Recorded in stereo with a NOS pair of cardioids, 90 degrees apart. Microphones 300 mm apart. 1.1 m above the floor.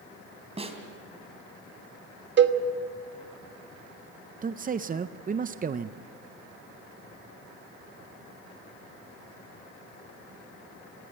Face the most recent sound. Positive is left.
turn(degrees=-30)